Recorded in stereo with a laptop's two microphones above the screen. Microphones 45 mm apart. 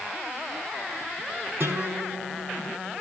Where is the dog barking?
I don't hear a dog barking.